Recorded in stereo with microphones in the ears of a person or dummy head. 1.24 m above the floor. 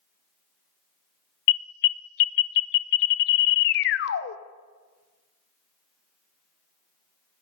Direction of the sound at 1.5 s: 55° left (ahead or behind).